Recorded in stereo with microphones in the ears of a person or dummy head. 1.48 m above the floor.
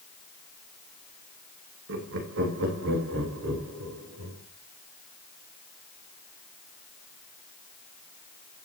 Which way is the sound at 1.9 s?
65° right (ahead or behind).